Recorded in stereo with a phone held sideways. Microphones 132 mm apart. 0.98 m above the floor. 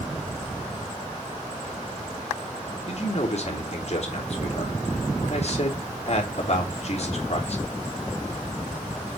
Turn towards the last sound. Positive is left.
turn(degrees=55)  # may be behind; listen again after turning